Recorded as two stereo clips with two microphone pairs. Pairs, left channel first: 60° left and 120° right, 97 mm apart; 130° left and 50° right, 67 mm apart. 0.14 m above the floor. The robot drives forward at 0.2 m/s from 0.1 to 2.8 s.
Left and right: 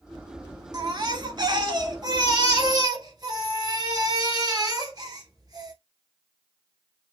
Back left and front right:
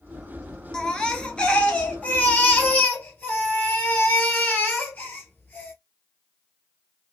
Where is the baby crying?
150° right, 0.7 m; by 5.7 s 165° right, 1.1 m.